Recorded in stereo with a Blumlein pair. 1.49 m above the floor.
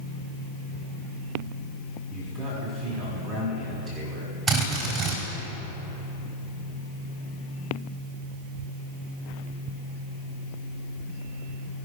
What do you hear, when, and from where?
2.1 s a man speaking: 25° right, 4 m
4.5 s a drill: 25° right, 3.5 m